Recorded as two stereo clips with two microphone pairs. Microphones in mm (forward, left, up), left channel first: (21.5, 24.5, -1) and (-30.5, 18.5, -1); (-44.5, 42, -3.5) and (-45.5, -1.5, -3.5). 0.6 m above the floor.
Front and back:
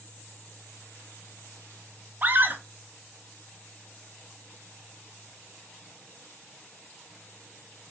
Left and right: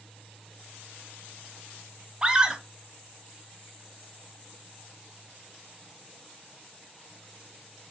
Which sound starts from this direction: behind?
A scream, at 2.2 s.